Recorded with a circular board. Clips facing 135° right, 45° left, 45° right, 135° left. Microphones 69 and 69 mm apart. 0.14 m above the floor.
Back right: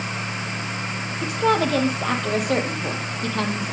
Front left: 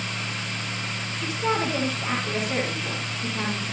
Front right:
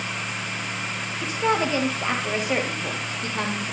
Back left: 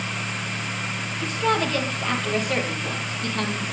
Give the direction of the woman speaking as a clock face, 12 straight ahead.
4 o'clock.